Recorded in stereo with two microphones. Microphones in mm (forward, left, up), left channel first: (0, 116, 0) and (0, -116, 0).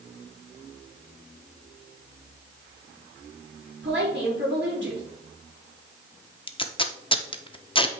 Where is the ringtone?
No ringtone in this recording.